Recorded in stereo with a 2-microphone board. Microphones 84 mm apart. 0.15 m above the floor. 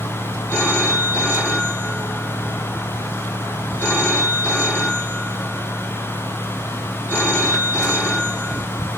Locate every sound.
0.5 s a phone ringing: 25° left (ahead or behind), 5 m